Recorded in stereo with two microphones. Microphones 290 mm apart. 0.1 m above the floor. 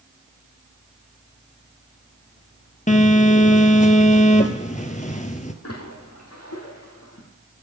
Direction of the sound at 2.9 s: 25° left (ahead or behind).